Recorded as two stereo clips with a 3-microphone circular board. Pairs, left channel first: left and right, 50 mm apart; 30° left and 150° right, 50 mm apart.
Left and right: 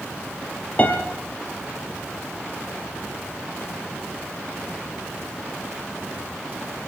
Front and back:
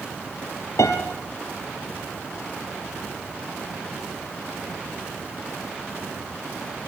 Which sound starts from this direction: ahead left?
A piano, at 0.8 s.